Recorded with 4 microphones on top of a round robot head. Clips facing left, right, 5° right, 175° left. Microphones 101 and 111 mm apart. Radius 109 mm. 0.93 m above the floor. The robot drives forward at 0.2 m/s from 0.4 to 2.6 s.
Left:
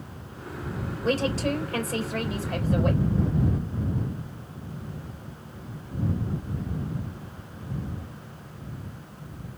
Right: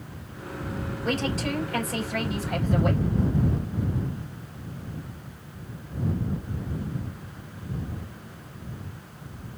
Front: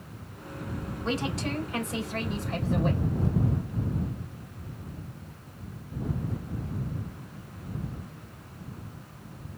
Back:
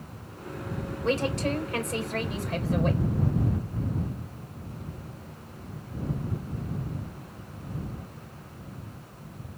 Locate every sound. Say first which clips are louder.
1.0 s a woman speaking: left 3 dB, back 4 dB; 135° left, 4 m; by 3.0 s 140° left, 4 m